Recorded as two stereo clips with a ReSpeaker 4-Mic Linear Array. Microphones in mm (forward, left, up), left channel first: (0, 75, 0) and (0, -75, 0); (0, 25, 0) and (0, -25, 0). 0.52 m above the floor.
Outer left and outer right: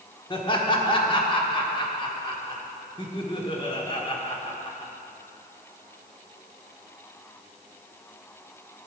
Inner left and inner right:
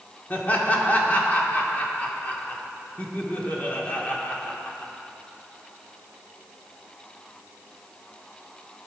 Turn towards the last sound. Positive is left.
turn(degrees=30)  # may be behind; listen again after turning